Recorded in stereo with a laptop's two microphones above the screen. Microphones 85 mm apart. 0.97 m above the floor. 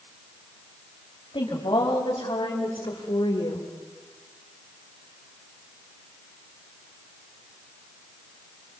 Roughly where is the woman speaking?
Left.